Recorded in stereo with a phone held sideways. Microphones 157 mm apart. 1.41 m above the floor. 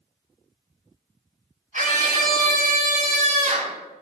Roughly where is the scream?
Right.